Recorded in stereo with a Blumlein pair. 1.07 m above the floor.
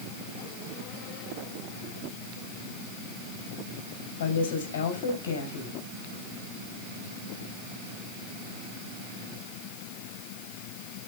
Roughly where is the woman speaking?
Ahead left.